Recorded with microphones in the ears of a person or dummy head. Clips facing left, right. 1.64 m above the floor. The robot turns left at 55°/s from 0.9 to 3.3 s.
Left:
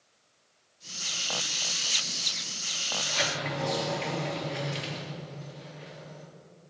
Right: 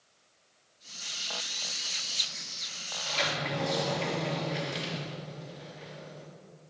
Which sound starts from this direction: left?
A sliding door, at 3.0 s.